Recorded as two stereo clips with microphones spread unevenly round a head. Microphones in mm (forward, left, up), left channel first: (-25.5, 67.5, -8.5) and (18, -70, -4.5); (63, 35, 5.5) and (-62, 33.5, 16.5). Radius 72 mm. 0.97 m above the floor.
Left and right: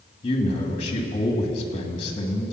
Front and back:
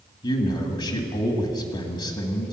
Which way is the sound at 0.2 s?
50° left.